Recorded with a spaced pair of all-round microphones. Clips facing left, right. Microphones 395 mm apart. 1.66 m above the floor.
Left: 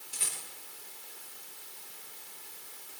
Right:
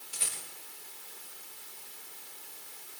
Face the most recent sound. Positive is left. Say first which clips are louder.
# right 1 dB
turn(degrees=65)  # may be behind; listen again after turning